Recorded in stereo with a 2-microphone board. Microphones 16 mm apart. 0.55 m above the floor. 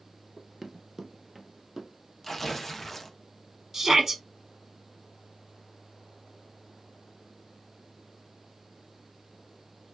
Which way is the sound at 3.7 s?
25° right (ahead or behind).